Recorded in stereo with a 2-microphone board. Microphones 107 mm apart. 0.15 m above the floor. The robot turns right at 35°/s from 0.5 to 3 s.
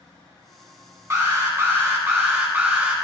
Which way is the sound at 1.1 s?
25° right (ahead or behind).